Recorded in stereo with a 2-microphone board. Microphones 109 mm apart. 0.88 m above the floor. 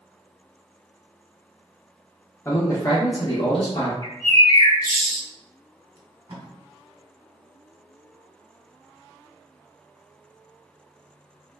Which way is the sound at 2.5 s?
20° left (ahead or behind).